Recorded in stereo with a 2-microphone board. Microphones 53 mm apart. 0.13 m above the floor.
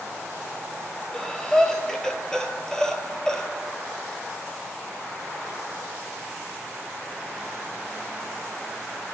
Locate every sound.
1.1 s breathing: 10° left (ahead or behind), 0.9 m